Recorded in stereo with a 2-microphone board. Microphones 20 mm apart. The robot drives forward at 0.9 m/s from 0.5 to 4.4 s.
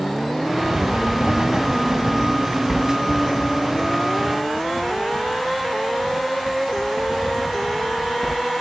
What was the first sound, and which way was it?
Writing, 60° right (ahead or behind).